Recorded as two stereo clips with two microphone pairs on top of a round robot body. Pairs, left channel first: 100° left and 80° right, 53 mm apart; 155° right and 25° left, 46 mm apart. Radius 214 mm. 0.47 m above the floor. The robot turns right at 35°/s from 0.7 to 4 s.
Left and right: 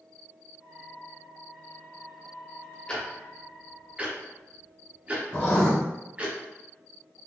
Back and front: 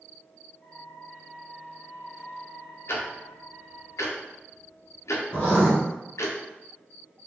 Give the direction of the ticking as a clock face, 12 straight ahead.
6 o'clock.